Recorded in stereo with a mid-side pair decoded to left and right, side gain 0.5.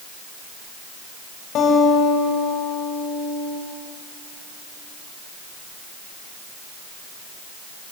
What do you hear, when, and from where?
1.6 s a guitar: 70° left, 7 m